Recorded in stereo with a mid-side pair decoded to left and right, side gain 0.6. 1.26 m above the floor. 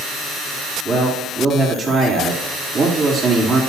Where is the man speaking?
40° right, 3.5 m.